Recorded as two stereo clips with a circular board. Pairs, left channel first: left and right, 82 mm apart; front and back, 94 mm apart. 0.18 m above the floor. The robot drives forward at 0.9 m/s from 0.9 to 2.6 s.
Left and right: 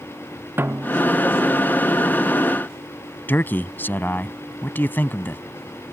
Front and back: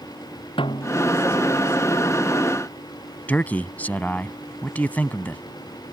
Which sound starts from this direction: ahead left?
A man speaking, at 3.3 s.